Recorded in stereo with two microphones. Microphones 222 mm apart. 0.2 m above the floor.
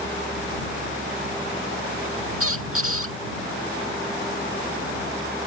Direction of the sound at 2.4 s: 80° right.